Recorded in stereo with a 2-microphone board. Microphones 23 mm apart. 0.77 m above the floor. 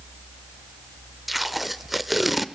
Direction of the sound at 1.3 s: 5° right (ahead or behind).